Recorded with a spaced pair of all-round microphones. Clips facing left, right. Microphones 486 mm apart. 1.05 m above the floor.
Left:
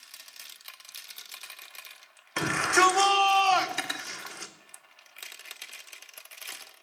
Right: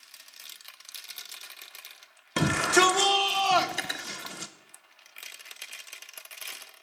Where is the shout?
50° right (ahead or behind), 0.8 m.